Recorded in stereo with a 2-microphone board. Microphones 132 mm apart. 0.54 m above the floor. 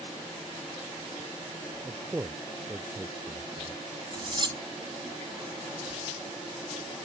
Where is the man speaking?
15° right (ahead or behind).